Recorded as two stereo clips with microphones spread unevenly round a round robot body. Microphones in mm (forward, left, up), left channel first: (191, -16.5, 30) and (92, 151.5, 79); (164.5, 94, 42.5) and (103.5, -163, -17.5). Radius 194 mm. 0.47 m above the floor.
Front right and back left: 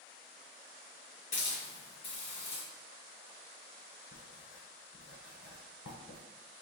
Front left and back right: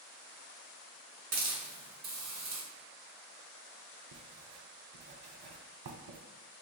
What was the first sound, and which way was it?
A hiss, 120° right.